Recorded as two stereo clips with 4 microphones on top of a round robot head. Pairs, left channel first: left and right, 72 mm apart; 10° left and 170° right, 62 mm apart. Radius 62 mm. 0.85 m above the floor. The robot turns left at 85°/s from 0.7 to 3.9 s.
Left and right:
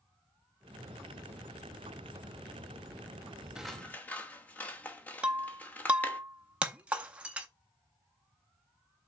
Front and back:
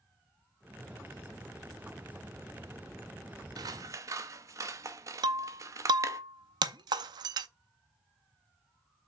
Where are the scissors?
170° right, 0.9 m; by 6.2 s 160° left, 0.9 m.